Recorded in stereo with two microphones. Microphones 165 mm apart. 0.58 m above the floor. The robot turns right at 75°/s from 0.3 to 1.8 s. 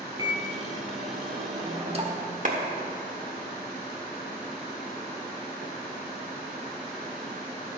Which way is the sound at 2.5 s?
50° right (ahead or behind).